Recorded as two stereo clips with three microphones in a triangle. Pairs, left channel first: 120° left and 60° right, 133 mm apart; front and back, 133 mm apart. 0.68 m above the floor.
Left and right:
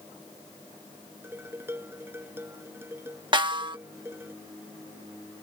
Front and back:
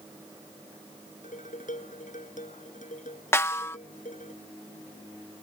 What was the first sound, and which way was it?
Dishes clattering, 10° left.